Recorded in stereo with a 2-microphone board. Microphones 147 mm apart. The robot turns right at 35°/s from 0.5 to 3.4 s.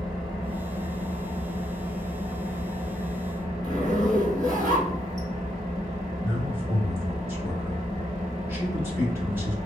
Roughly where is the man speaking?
Centre.